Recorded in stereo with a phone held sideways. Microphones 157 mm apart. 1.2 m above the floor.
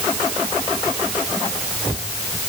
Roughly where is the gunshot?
No gunshot in this recording.